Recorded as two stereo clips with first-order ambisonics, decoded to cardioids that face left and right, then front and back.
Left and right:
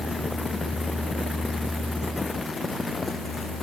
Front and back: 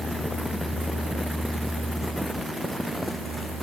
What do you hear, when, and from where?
Only background noise.